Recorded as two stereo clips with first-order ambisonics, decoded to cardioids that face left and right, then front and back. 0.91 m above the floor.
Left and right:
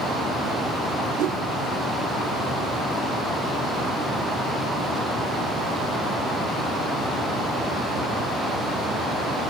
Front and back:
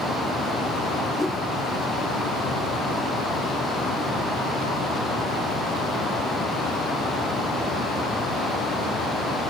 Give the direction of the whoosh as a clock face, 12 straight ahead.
3 o'clock.